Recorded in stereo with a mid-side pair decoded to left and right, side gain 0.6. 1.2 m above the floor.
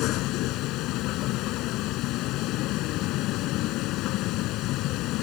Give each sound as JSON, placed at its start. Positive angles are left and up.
{"t": 0.0, "sound": "a vehicle", "azimuth_deg": 70}